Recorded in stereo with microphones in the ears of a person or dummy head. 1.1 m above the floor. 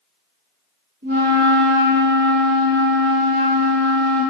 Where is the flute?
65° right (ahead or behind), 1.5 m.